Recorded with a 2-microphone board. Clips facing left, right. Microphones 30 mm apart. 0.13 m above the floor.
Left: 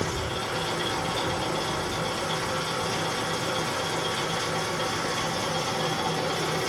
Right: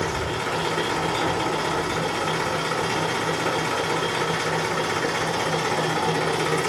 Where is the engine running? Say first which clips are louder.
Right 4 dB; 75° right (ahead or behind), 6.5 m.